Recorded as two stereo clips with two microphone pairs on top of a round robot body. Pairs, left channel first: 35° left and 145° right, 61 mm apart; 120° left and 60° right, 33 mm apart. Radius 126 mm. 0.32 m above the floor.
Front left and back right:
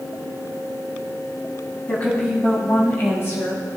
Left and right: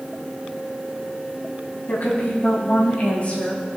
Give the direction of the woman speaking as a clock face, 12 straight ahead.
9 o'clock.